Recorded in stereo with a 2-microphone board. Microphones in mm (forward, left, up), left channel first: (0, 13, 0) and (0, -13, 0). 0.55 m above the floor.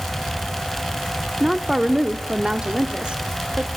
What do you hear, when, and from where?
1.4 s a woman speaking: 15° right (ahead or behind), 1.2 m; by 3.7 s 55° right (ahead or behind), 1.4 m